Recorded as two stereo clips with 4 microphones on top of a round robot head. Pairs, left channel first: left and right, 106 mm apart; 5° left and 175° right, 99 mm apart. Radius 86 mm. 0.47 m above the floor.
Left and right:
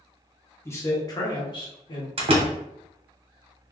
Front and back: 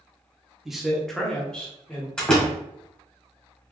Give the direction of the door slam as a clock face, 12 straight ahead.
3 o'clock.